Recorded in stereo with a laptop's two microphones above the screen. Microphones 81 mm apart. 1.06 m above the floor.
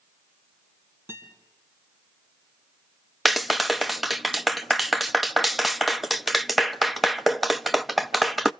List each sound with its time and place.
1.1 s a guitar: 30° right (ahead or behind), 5 m
3.2 s a clap: centre (ahead or behind), 1.0 m